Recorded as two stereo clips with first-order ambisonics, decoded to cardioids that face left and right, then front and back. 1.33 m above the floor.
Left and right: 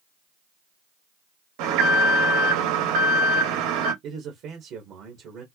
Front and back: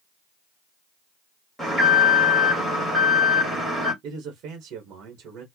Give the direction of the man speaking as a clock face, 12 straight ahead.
4 o'clock.